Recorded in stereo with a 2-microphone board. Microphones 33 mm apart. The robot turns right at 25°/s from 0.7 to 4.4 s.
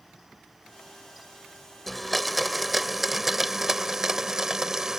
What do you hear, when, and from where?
1.9 s a blender: 5° left (ahead or behind); by 5.0 s 15° right (ahead or behind)